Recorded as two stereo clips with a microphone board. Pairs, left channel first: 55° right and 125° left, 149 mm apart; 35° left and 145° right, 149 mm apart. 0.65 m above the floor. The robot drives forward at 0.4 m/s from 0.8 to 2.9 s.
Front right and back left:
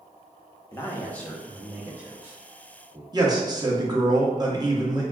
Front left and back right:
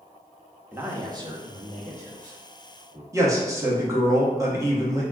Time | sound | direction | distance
0.7 | a man speaking | 90° right | 0.5 m
3.1 | a man speaking | 160° left | 0.7 m